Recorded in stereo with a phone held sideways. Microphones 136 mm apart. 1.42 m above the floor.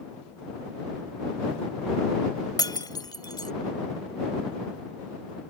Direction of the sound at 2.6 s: 30° left (ahead or behind).